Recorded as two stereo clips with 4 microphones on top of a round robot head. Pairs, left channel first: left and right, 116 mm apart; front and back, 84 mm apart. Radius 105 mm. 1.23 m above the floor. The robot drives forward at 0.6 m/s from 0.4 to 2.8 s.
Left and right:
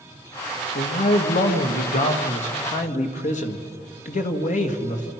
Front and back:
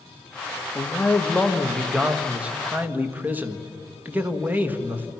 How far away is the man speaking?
About 1.9 m.